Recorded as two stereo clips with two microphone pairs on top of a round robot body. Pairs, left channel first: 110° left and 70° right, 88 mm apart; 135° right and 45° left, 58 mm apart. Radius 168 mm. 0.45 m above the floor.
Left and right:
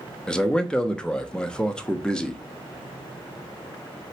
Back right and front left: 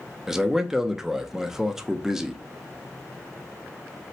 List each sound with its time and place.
0.3 s a man speaking: 100° left, 0.7 m